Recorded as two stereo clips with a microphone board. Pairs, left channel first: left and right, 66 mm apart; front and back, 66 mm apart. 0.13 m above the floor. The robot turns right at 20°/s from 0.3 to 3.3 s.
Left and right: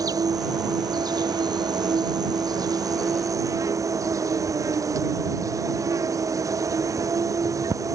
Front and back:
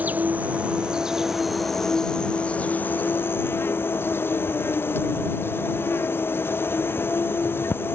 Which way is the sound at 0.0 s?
115° right.